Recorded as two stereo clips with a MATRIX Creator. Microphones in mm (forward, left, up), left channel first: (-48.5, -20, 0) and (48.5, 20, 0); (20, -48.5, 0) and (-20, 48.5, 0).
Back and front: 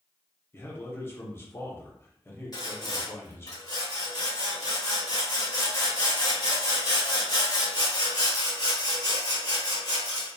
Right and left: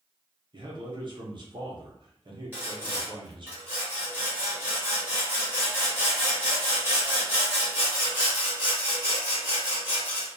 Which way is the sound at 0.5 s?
140° left.